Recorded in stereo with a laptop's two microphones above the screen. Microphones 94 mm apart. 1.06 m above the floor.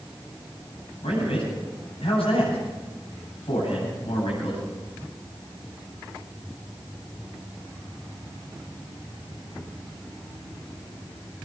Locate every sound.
1.0 s a man speaking: 80° left, 9 m